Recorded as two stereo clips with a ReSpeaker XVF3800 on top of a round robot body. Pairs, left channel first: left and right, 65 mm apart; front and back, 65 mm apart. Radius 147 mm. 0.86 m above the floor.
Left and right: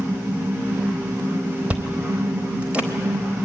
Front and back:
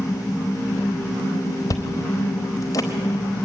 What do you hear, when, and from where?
1.7 s chewing: 25° right, 0.8 m